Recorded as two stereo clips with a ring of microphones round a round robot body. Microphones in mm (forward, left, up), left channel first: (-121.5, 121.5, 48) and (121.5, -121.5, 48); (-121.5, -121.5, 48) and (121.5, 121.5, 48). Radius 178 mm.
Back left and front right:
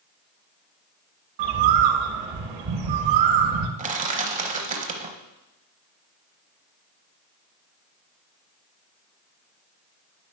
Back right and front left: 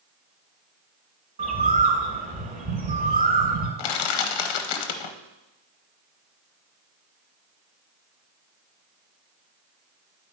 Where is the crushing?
115° right, 0.8 m.